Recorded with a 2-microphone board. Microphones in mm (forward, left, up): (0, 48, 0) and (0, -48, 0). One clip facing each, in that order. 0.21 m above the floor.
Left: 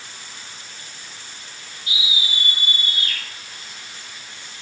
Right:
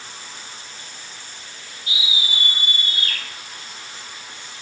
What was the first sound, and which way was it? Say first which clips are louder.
A scream: even; 30° right (ahead or behind).